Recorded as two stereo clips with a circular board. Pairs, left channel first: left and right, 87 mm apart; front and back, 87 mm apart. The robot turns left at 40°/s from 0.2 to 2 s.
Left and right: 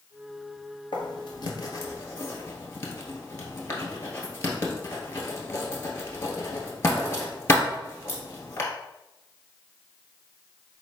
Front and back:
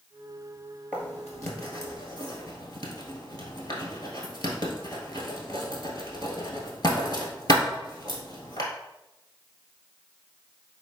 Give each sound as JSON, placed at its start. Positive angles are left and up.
{"t": 0.9, "sound": "writing", "azimuth_deg": 75, "distance_m": 1.4}